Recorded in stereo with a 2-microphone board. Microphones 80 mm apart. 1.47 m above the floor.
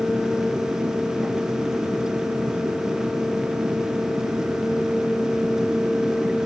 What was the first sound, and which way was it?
Only background noise.